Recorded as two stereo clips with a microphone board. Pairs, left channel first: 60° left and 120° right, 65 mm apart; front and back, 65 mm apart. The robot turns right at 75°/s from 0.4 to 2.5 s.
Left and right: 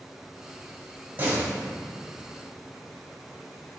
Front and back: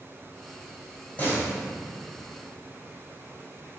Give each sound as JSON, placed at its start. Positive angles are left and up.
{"t": 1.2, "sound": "a door slam", "azimuth_deg": -60, "distance_m": 4.5}